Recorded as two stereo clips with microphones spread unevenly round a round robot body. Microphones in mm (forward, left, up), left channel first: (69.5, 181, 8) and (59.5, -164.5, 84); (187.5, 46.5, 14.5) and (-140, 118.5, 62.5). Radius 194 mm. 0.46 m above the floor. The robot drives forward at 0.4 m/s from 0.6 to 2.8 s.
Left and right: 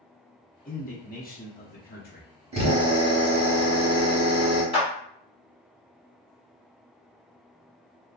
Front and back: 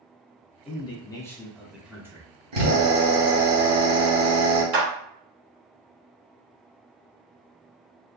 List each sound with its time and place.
0.7 s a man speaking: 45° left, 1.5 m; by 2.3 s 85° left, 1.3 m
2.5 s a drill: 170° right, 1.7 m; by 4.6 s 175° right, 1.8 m
4.7 s a clap: 155° left, 1.6 m